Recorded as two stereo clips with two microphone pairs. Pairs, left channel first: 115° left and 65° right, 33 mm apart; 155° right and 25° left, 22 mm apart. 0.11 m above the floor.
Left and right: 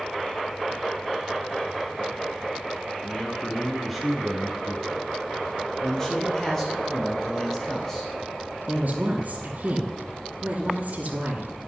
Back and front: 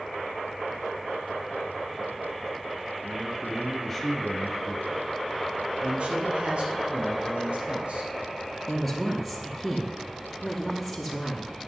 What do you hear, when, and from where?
3.0 s a man speaking: 90° left, 1.8 m; by 5.3 s 125° right, 2 m
5.8 s a man speaking: 40° left, 2.5 m
8.7 s a woman speaking: 60° right, 2 m